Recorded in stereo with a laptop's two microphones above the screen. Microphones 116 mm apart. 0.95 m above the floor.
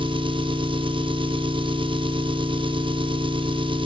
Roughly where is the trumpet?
No trumpet in this recording.